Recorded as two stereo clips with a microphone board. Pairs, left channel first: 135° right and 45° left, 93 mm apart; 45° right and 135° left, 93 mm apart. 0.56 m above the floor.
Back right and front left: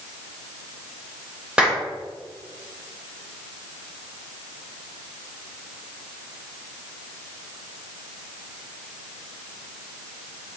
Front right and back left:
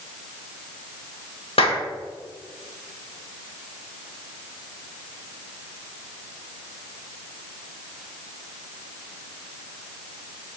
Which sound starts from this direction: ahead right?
A clap, at 1.6 s.